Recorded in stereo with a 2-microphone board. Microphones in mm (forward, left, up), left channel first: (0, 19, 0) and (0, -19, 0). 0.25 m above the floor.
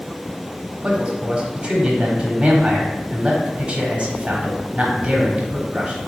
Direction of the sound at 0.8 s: 30° right (ahead or behind).